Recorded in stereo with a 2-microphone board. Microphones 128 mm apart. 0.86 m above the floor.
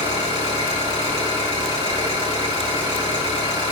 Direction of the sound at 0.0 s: 40° right (ahead or behind).